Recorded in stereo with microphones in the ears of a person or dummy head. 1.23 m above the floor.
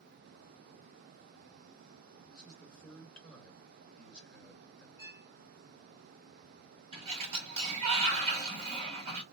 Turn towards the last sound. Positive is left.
turn(degrees=-40)  # may be behind; listen again after turning